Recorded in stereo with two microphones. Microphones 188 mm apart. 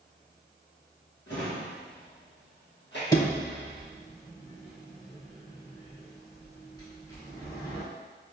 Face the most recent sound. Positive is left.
turn(degrees=20)  # may be behind; listen again after turning